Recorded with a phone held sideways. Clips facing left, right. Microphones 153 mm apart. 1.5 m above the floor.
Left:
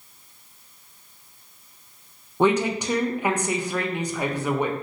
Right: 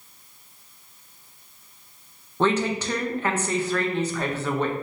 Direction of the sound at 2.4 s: 15° left (ahead or behind).